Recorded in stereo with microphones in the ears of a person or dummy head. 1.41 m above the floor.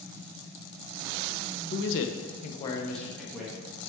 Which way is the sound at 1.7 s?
50° left (ahead or behind).